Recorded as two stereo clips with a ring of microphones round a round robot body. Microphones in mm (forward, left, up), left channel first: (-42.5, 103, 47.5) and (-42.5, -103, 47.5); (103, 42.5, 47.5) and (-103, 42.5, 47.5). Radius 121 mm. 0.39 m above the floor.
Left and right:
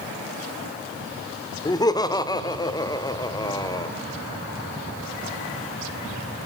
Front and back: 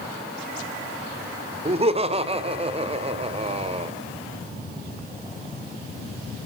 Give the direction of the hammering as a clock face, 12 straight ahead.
No hammering in this recording.